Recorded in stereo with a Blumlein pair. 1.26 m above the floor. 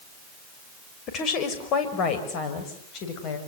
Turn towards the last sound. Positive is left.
turn(degrees=35)